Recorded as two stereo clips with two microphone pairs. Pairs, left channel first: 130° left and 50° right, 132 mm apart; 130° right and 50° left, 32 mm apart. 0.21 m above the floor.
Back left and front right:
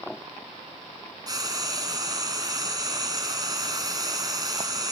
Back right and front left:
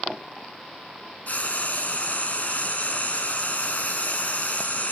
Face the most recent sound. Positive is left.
turn(degrees=-105)